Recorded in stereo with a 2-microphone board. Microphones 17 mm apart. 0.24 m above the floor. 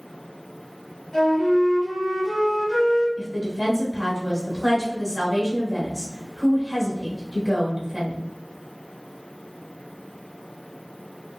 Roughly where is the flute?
Left.